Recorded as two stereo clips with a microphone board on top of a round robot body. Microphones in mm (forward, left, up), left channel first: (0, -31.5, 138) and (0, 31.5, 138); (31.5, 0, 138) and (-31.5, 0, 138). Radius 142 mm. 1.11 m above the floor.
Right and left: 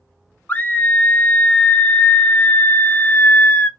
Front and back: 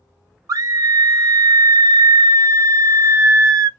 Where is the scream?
155° right, 0.8 m.